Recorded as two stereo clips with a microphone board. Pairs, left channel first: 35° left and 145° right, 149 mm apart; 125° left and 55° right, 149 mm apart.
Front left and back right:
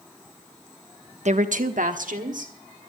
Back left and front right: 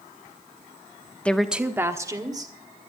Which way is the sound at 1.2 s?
155° right.